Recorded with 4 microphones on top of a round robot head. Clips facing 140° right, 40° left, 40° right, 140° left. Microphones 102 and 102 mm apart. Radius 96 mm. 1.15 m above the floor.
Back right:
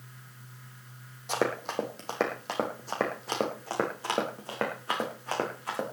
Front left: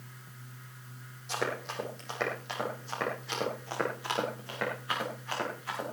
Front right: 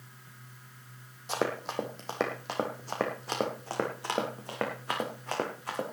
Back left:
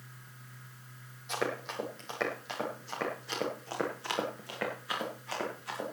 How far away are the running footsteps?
About 2.5 m.